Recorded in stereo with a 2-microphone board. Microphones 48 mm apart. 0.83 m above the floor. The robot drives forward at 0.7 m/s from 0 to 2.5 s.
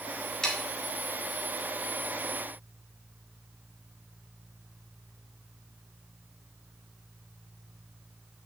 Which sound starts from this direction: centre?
Sawing, at 0.4 s.